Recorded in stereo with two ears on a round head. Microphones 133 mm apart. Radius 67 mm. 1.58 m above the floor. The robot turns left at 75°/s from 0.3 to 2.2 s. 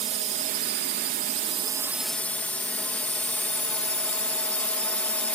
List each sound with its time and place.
0.0 s a drone: 50° right; by 5.4 s 170° left